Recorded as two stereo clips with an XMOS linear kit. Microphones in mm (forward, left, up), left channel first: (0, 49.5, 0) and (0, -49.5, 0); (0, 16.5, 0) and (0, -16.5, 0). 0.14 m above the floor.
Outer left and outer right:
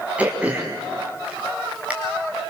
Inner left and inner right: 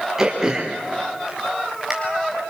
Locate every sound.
0.2 s throat clearing: 15° right (ahead or behind), 4 m